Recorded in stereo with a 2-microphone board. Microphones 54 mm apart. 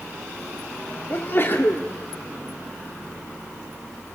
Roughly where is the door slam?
I don't hear a door slam.